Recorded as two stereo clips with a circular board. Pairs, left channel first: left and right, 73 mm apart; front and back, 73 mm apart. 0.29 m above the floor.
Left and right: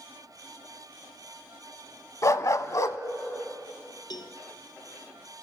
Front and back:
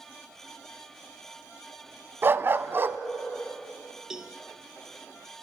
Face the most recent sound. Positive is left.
turn(degrees=95)